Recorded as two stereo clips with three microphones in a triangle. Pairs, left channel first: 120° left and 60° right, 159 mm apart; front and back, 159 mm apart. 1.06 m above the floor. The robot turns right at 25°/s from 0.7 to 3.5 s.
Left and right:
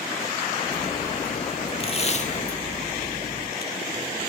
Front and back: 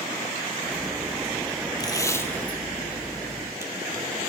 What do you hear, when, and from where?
1.8 s tape being pulled: 65° left, 1.6 m; by 4.3 s 105° left, 1.6 m